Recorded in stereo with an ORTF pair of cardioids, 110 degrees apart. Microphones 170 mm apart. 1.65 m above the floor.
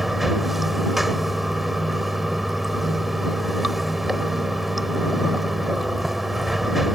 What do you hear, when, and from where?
0.0 s running water: straight ahead